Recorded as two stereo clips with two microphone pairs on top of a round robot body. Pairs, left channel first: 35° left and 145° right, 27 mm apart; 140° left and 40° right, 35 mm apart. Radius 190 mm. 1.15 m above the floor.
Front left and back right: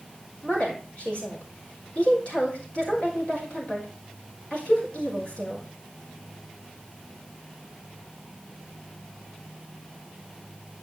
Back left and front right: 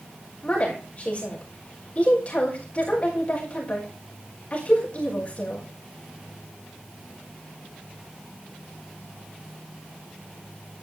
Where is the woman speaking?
90° left, 4.5 m.